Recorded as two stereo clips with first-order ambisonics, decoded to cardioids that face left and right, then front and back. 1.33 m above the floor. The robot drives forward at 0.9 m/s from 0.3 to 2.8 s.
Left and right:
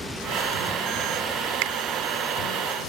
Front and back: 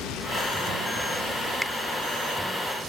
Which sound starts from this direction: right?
A finger snap, at 1.6 s.